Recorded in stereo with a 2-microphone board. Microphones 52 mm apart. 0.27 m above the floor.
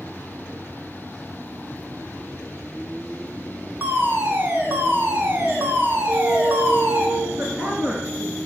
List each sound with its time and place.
3.8 s a fire alarm: 45° right (ahead or behind), 4 m
6.1 s a flute: 30° right (ahead or behind), 0.8 m
7.4 s a woman speaking: 25° right (ahead or behind), 3 m